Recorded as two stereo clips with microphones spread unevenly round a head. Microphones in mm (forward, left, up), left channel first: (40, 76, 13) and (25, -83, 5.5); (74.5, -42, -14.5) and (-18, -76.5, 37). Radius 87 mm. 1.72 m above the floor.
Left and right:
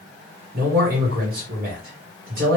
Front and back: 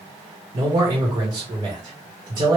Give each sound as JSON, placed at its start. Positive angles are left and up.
{"t": 0.5, "sound": "a man speaking", "azimuth_deg": -135, "distance_m": 1.3}